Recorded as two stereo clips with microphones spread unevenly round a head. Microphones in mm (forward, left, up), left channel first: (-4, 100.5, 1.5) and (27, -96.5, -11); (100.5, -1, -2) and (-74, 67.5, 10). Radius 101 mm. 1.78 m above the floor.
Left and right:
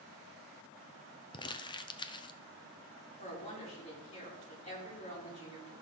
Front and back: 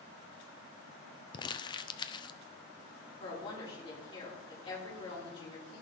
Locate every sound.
1.3 s crumpling: 40° left, 0.6 m
3.2 s a woman speaking: 40° left, 5.5 m